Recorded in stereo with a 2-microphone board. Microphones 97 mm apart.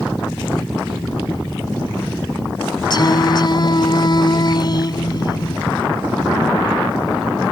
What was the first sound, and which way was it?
Singing, 50° left (ahead or behind).